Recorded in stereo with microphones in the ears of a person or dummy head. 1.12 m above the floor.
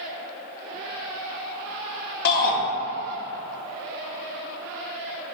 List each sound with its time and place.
2.2 s a shout: 60° left (ahead or behind), 0.6 m